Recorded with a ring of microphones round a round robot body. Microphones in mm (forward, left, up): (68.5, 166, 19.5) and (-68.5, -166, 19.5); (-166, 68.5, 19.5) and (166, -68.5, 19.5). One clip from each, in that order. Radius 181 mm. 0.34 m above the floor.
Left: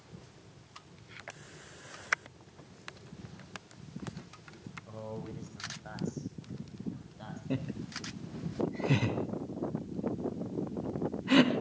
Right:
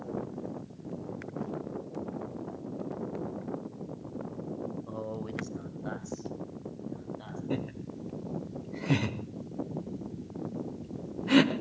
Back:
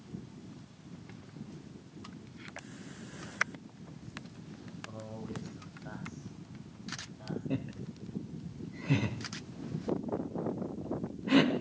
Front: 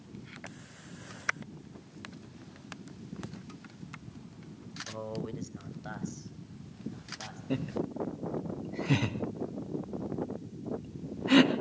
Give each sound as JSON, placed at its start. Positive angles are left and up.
{"t": 4.9, "sound": "a man speaking", "azimuth_deg": -80, "distance_m": 1.8}
{"t": 7.5, "sound": "laughter", "azimuth_deg": -30, "distance_m": 1.2}